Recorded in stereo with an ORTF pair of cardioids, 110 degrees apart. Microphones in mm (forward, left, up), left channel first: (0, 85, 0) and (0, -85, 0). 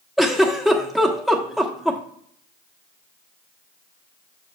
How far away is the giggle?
About 1.2 m.